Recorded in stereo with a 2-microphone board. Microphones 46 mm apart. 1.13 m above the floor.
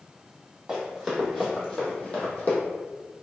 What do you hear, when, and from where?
0.7 s running footsteps: 10° right (ahead or behind), 1.6 m; by 2.6 s 35° left (ahead or behind), 1.6 m